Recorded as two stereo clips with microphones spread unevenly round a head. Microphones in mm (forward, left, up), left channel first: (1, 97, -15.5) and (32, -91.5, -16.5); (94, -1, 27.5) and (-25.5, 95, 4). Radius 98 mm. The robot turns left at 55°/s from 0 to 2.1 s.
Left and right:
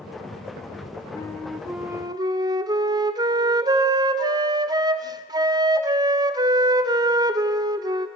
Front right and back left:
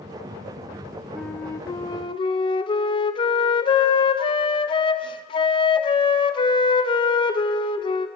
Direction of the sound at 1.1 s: 30° left.